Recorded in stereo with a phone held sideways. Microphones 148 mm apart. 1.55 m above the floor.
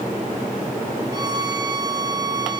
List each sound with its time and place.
1.1 s a violin: 25° right (ahead or behind), 1.5 m